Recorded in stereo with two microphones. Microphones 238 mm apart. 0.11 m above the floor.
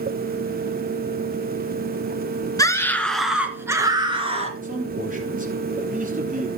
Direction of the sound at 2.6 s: 15° left (ahead or behind).